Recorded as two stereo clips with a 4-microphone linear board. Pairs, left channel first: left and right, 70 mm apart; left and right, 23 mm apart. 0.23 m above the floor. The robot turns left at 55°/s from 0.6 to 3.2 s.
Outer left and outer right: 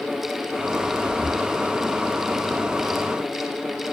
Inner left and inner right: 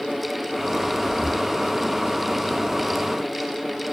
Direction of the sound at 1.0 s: 25° left (ahead or behind).